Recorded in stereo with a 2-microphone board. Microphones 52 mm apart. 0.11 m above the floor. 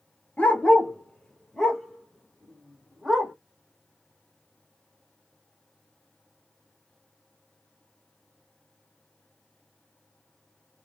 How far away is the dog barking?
About 0.8 m.